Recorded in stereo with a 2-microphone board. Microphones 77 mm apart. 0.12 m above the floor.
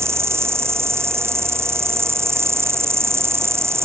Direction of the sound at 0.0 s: 35° right (ahead or behind).